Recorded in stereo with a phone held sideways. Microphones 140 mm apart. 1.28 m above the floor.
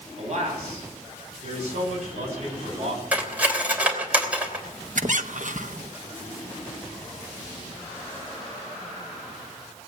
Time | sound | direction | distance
0.2 | a man speaking | 55° right (ahead or behind) | 9.5 m
3.1 | cutlery clinking | 10° right (ahead or behind) | 3 m
5.0 | a squeak | 65° right (ahead or behind) | 0.8 m